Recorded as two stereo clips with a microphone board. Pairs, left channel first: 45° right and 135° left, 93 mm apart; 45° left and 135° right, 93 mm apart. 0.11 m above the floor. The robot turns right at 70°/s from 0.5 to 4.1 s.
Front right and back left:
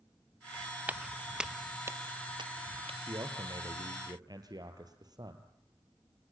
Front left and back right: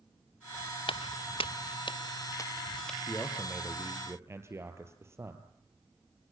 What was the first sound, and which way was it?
Footsteps, 65° left.